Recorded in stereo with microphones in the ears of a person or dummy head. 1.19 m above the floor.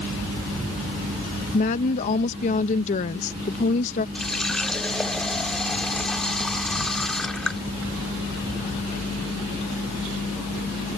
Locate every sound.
1.5 s a woman speaking: 40° left (ahead or behind)
4.2 s a running tap: 5° left (ahead or behind)